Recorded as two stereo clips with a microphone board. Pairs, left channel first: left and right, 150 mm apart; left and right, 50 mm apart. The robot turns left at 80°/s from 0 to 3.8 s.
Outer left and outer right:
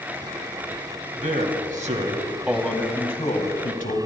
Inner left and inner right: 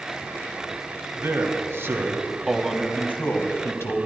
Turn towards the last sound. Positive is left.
turn(degrees=85)